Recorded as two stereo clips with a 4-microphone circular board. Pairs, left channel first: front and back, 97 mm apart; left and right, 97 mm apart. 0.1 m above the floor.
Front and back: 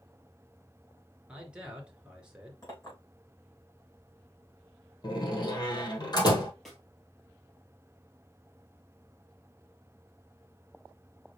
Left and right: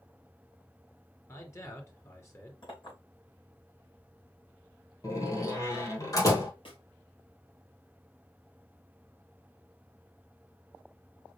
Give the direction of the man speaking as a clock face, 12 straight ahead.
8 o'clock.